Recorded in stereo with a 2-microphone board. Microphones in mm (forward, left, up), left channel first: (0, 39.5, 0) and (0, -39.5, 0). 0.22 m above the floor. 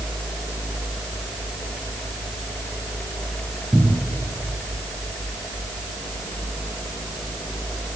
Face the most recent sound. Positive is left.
turn(degrees=10)  # may be behind; listen again after turning